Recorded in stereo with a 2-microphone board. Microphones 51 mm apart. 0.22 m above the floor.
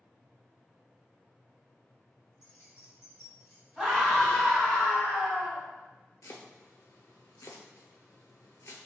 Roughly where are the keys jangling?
Left.